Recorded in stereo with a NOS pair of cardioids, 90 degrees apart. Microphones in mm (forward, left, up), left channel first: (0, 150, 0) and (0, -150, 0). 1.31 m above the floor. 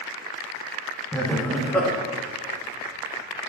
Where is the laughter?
5° left, 0.9 m.